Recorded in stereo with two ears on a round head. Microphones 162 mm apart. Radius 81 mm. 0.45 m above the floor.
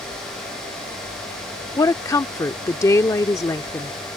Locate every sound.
1.8 s a woman speaking: 15° left (ahead or behind)